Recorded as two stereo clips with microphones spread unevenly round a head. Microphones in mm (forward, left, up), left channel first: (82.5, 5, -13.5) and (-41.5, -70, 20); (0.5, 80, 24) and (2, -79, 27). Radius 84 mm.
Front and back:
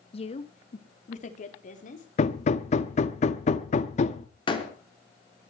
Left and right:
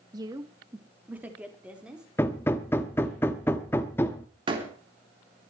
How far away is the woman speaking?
About 1.6 m.